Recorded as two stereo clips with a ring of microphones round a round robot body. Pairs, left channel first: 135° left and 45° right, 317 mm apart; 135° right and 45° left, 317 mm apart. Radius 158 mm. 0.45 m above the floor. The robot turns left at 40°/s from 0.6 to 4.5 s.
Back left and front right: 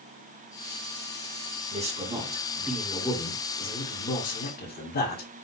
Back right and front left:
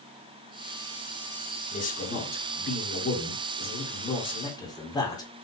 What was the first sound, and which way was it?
A man speaking, 90° right.